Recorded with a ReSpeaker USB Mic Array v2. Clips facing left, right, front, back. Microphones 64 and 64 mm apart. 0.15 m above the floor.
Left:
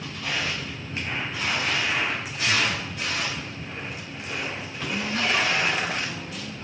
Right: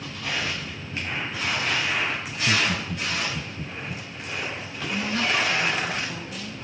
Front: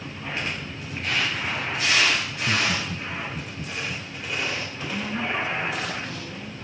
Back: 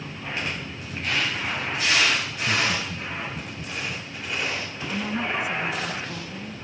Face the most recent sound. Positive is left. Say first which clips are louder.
# even, back 1 dB
turn(degrees=-140)